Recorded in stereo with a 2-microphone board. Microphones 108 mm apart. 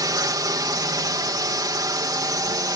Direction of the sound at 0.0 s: 35° right (ahead or behind).